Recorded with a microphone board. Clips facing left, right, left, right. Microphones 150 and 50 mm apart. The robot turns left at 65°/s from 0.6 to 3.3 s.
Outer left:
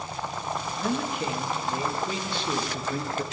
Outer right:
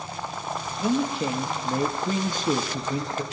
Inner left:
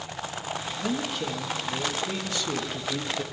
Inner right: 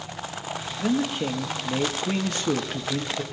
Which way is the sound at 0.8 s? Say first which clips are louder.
Outer right 6 dB, inner right 6 dB; 15° right.